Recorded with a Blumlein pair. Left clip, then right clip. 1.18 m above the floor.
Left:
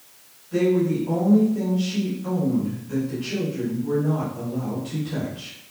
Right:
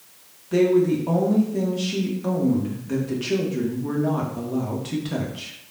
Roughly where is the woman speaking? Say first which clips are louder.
Right 3 dB; ahead right.